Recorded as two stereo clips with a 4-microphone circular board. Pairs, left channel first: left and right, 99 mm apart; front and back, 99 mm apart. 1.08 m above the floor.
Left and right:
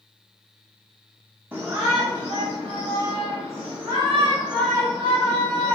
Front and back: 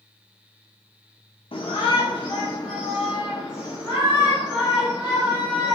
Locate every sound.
1.5 s a shout: 20° right, 0.7 m; by 5.8 s 65° right, 2.5 m